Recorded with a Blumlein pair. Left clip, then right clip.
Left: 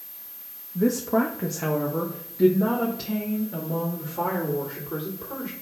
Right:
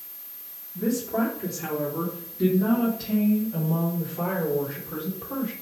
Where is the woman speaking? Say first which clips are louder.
Left 4 dB; 25° left, 1.1 m; by 5.5 s 75° left, 4 m.